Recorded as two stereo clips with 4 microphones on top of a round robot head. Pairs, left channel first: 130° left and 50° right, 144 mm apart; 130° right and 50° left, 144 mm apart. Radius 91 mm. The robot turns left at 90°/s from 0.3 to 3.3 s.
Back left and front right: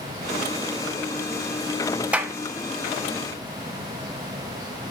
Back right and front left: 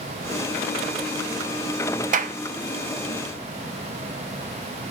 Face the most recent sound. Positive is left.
turn(degrees=-75)